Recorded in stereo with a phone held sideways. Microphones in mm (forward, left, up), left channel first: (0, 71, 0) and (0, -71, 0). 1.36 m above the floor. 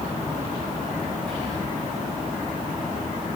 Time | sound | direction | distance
1.3 | whispering | 5° left (ahead or behind) | 0.7 m